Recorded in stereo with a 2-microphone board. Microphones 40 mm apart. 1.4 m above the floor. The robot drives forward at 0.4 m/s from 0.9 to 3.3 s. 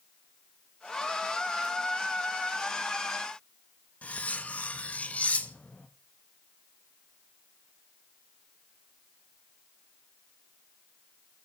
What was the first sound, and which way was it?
Cutlery clinking, 35° left (ahead or behind).